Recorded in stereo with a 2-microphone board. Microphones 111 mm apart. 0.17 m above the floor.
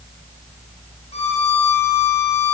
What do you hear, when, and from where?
1.1 s a violin: 70° left (ahead or behind), 4.5 m